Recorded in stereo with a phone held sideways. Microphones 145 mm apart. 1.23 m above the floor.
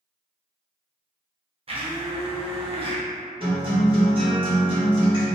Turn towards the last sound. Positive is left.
turn(degrees=-35)  # may be behind; listen again after turning